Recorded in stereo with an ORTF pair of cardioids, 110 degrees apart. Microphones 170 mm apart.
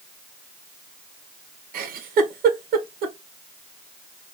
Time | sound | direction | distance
1.7 | a giggle | 60° right | 1.1 m